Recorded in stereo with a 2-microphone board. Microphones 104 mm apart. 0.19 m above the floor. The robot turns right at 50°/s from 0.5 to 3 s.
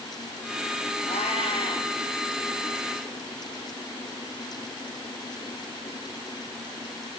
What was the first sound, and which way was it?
A cat meowing, 95° left.